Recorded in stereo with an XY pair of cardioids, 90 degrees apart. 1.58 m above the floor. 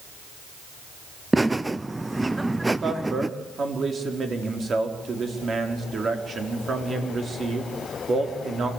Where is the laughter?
15° right, 0.5 m.